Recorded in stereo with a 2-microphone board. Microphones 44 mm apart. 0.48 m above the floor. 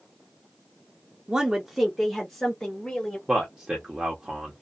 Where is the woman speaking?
20° right (ahead or behind), 0.7 m; by 3.2 s 15° left (ahead or behind), 1.7 m.